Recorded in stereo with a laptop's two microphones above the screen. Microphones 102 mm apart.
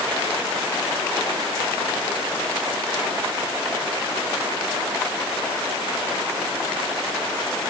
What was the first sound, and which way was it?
Only background noise.